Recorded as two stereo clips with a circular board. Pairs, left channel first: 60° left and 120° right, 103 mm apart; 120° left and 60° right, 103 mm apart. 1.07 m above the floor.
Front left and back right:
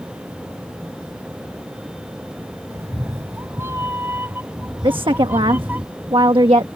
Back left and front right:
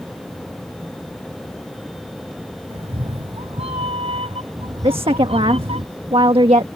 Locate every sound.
2.7 s a cat meowing: 60° right; by 5.8 s 50° right
4.8 s a woman speaking: 85° right